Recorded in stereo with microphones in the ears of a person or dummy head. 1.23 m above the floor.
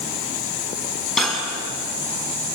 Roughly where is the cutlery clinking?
Centre.